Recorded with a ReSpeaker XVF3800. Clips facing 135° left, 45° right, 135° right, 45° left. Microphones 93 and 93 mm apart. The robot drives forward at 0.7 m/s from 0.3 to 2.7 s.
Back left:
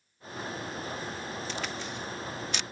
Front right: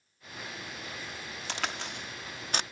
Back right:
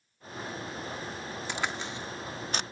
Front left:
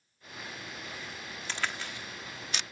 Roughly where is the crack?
Ahead right.